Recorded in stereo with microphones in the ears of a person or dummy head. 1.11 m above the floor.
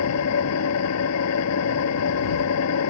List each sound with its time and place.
0.0 s an engine running: 85° left